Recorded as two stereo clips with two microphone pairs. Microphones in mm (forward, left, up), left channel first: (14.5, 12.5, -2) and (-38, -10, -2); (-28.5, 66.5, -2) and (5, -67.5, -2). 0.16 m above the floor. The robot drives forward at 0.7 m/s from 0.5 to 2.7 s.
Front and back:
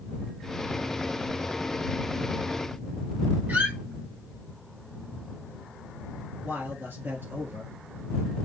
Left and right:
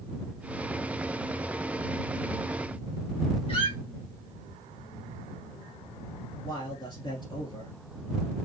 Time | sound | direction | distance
3.5 | a squeak | 150° left | 1.8 m
6.4 | a man speaking | 160° left | 2.5 m